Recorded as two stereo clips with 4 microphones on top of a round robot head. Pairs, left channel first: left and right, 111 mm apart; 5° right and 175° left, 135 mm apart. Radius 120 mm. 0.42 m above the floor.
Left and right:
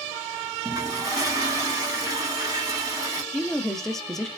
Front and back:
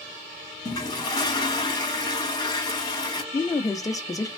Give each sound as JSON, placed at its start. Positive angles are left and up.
{"t": 0.7, "sound": "a toilet flushing", "azimuth_deg": -50, "distance_m": 1.3}
{"t": 3.3, "sound": "a woman speaking", "azimuth_deg": 10, "distance_m": 0.8}